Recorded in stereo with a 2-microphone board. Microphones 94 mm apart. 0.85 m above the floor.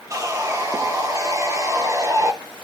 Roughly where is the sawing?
Right.